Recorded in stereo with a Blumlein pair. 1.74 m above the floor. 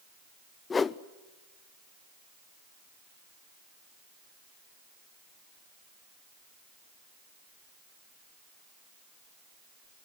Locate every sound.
0.7 s a whoosh: 15° left, 0.5 m